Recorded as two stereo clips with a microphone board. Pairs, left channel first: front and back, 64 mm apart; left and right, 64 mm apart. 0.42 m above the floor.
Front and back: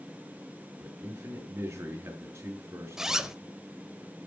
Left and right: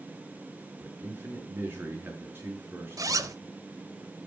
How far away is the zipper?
About 0.6 m.